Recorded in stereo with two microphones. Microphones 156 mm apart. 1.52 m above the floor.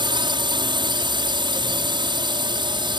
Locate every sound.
0.0 s a drone: 30° right (ahead or behind)